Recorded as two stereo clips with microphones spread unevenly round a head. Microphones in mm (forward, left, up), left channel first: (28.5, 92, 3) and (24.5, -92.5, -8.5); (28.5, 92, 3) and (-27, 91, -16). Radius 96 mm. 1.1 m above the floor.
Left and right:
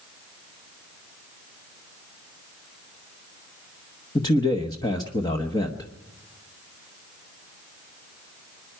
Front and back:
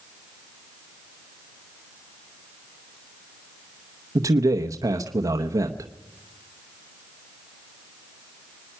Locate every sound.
4.2 s a man speaking: 160° left, 1.0 m